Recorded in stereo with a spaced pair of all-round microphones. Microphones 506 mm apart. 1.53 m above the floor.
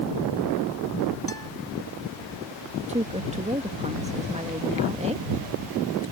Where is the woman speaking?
15° right (ahead or behind).